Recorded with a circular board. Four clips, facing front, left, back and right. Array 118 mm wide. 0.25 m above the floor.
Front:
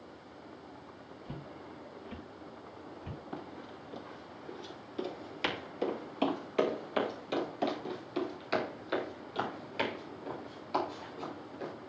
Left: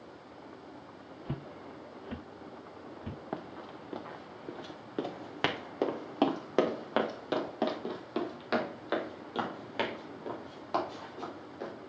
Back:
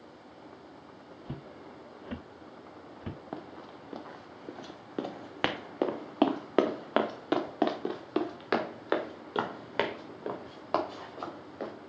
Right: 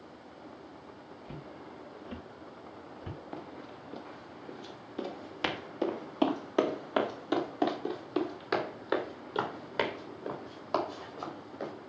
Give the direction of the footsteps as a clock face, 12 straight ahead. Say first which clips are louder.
Left 4 dB, back 2 dB; 8 o'clock.